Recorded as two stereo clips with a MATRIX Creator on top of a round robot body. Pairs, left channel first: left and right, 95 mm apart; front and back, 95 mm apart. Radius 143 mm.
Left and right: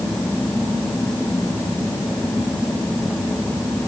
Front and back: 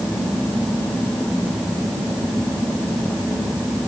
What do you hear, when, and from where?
Only background noise.